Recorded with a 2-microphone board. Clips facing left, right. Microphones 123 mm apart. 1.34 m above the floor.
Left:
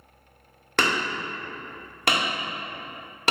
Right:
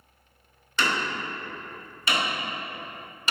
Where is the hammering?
65° left (ahead or behind), 1.9 m.